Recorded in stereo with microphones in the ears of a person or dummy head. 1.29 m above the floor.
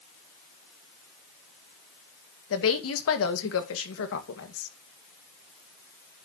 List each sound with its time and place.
2.5 s a woman speaking: 70° left (ahead or behind), 1.8 m